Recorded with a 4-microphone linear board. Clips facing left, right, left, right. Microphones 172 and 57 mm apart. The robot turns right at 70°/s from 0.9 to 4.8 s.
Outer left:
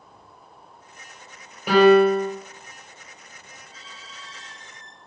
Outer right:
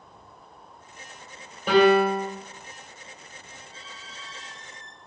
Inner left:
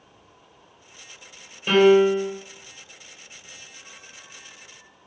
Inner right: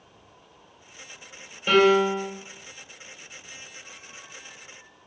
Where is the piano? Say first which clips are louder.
Outer left 4 dB, inner left 3 dB; 170° left, 2.5 m; by 2.3 s 145° right, 2.5 m.